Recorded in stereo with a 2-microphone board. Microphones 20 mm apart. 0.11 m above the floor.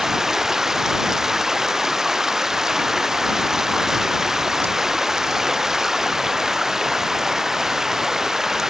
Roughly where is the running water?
Right.